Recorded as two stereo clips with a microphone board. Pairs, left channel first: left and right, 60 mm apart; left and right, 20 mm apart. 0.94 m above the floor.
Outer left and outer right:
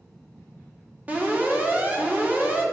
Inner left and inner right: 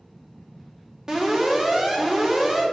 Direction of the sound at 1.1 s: 25° right (ahead or behind).